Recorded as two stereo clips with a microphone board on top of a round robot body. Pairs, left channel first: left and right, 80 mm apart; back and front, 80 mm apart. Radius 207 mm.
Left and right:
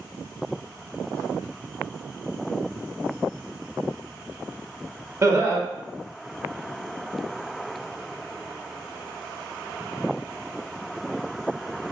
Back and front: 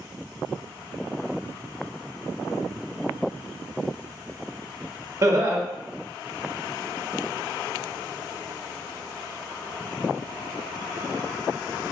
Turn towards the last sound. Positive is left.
turn(degrees=-45)